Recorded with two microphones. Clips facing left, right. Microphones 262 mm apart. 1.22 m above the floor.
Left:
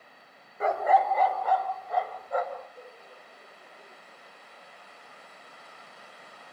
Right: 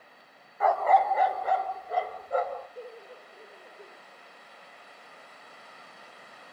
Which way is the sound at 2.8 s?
75° right (ahead or behind).